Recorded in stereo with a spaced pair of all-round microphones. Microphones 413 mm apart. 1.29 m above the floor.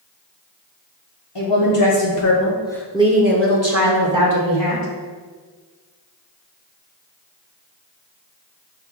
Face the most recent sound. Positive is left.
turn(degrees=-55)  # may be behind; listen again after turning